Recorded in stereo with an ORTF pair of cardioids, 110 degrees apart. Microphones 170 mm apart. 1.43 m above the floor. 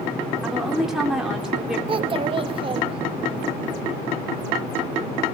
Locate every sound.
0.4 s a woman speaking: 5° right, 3.5 m
1.9 s a child speaking: 30° right, 1.5 m